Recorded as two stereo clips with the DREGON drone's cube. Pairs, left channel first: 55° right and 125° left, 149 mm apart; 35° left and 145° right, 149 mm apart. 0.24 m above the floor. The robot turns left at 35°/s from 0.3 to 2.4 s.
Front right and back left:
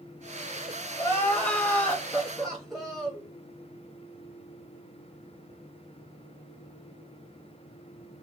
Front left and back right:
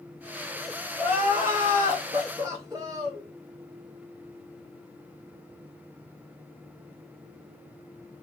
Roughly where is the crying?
Right.